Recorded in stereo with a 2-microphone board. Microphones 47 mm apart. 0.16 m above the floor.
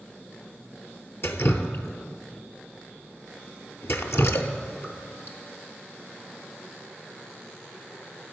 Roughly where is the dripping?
Left.